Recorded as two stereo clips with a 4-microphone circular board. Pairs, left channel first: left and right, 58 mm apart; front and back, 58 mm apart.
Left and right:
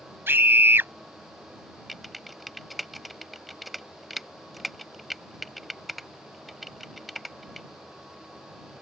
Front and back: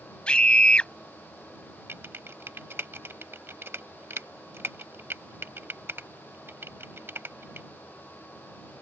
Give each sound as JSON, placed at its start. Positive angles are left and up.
{"t": 0.3, "sound": "a scream", "azimuth_deg": -65}
{"t": 1.9, "sound": "typing on a keyboard", "azimuth_deg": 180}